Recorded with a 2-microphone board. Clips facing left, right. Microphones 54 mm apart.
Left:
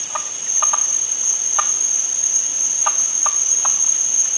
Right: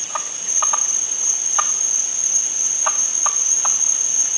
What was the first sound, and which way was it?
An insect, 35° right (ahead or behind).